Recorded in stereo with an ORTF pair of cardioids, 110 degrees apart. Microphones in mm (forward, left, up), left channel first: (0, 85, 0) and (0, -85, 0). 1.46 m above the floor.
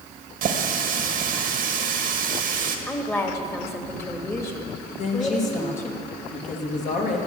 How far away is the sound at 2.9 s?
About 1.8 m.